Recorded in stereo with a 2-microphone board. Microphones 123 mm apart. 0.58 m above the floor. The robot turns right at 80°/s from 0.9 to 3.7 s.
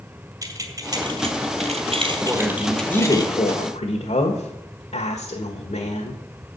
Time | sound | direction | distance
0.4 | keys jangling | 30° right (ahead or behind) | 2 m
2.2 | a woman speaking | 25° right | 1.5 m